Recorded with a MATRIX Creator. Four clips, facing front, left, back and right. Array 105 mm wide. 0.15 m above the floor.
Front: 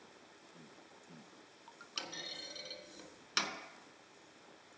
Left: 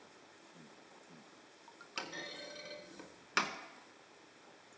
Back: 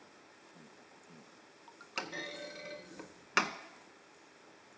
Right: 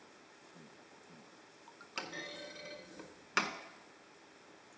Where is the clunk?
175° right, 0.6 m.